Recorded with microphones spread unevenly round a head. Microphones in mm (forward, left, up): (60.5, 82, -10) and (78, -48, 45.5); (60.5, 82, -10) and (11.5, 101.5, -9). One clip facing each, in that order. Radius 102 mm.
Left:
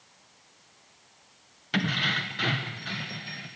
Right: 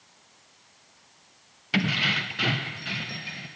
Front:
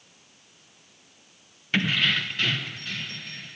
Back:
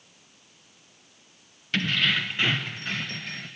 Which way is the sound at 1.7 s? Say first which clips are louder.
Right 2 dB, front 1 dB; 80° right.